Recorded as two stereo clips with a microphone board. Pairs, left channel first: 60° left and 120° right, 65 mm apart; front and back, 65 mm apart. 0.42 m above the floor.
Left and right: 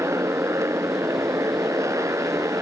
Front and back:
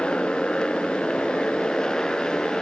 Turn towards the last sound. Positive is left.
turn(degrees=-80)